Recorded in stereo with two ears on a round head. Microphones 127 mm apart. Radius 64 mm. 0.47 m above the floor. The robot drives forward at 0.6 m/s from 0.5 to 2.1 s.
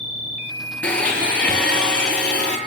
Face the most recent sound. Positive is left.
turn(degrees=5)  # may be behind; listen again after turning